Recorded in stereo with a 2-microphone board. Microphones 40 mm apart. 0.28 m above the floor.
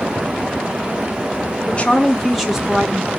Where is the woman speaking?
30° left (ahead or behind), 1.3 m; by 3.1 s 25° right (ahead or behind), 2 m.